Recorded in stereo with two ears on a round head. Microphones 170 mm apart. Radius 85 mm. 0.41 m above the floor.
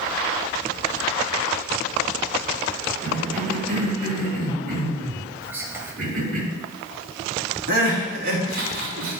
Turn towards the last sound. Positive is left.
turn(degrees=-50)  # may be behind; listen again after turning